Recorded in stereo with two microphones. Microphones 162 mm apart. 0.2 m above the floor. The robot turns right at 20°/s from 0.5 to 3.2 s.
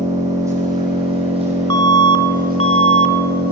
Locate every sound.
0.0 s an engine running: 160° right, 8 m; by 3.5 s 110° right, 8 m
1.7 s an alarm: 25° left (ahead or behind), 2 m; by 3.1 s 50° left (ahead or behind), 2 m